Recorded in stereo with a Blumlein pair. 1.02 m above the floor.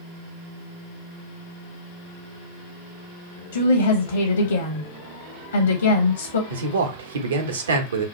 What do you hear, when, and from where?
3.5 s a woman speaking: 65° left, 0.7 m
6.5 s a man speaking: 65° right, 0.9 m